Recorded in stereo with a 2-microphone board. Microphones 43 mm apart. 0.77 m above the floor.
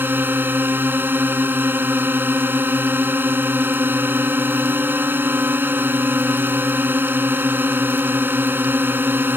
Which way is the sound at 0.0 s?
55° right (ahead or behind).